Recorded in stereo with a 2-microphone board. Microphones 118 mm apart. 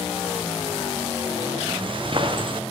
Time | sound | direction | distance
1.7 | footsteps | 45° right (ahead or behind) | 1.3 m